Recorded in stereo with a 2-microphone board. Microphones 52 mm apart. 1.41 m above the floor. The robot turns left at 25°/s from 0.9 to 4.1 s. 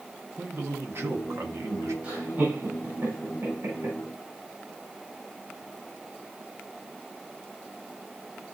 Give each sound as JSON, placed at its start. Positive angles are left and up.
{"t": 0.4, "sound": "a man speaking", "side_deg": -50, "distance_m": 1.3}
{"t": 2.0, "sound": "laughter", "side_deg": -35, "distance_m": 4.0}